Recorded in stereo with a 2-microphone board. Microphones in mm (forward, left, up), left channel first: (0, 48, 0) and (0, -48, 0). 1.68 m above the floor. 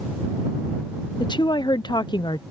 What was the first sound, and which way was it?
A woman speaking, 50° left (ahead or behind).